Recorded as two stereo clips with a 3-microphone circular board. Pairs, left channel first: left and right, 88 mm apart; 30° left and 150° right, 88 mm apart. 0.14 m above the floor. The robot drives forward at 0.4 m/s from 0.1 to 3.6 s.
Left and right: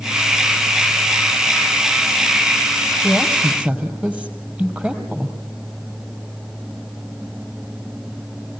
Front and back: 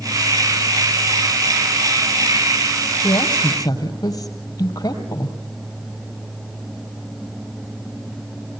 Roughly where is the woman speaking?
Ahead.